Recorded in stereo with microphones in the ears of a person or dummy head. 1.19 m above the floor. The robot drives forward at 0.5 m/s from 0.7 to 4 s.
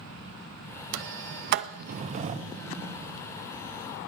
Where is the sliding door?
70° right (ahead or behind), 0.6 m; by 3.2 s 25° right (ahead or behind), 1.3 m.